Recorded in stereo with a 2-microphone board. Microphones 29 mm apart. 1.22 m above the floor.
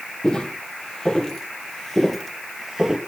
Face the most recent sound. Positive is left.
turn(degrees=-15)  # may be behind; listen again after turning